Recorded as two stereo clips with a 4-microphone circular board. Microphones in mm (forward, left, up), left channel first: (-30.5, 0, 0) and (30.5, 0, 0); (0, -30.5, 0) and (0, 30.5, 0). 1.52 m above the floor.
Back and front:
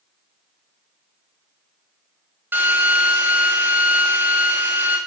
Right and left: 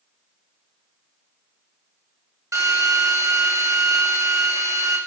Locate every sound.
2.5 s a drill: 55° left, 7.5 m